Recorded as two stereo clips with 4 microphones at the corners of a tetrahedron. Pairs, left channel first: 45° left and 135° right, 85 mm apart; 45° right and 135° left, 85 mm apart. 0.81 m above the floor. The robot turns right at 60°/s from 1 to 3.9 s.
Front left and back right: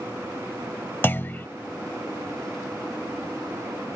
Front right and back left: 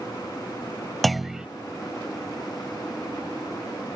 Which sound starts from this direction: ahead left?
A clunk, at 1.0 s.